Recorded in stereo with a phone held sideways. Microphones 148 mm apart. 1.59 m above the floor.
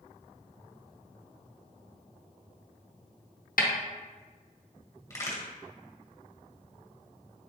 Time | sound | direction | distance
3.6 | a snare drum | 75° left (ahead or behind) | 0.6 m
5.1 | a crack | 20° left (ahead or behind) | 1.0 m